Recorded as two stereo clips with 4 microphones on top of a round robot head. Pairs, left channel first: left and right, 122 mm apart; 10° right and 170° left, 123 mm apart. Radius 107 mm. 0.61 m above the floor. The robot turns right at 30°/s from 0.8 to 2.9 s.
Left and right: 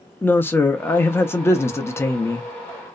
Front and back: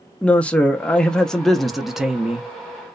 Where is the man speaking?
55° left, 0.5 m; by 2.5 s 105° left, 0.5 m.